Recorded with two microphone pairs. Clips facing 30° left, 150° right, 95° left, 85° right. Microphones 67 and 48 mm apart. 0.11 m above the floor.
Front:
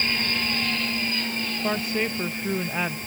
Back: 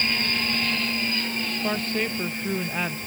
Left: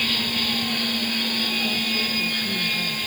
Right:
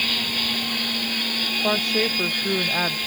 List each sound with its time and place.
1.6 s a woman speaking: 55° right